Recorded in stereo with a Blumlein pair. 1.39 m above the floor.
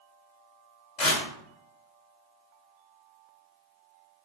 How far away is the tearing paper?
About 2.5 m.